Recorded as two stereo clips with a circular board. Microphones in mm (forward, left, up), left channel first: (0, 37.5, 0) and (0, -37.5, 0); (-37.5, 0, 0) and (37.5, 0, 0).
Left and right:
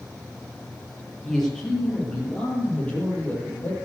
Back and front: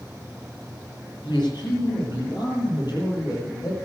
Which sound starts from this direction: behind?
A man speaking, at 1.2 s.